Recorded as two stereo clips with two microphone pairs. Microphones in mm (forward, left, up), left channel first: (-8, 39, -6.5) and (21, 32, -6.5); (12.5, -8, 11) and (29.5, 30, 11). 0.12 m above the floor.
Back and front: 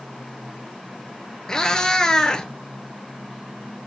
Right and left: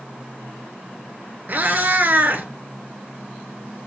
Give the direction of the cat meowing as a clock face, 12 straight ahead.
9 o'clock.